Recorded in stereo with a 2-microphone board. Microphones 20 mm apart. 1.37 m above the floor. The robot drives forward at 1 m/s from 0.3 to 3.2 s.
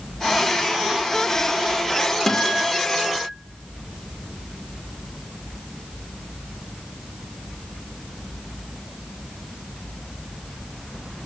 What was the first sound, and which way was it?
A guitar, 20° left (ahead or behind).